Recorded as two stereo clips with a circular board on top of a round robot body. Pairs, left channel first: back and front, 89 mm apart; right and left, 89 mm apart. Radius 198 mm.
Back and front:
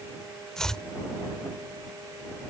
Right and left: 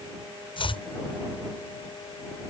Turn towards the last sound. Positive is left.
turn(degrees=-95)